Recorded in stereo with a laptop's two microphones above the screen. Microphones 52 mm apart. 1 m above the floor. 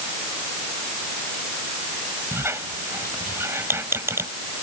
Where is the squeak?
55° right (ahead or behind).